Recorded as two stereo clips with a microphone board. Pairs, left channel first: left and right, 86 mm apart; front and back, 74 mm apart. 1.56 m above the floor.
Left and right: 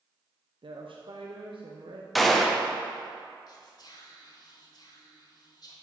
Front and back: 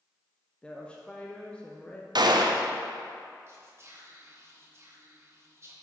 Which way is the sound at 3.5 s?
130° left.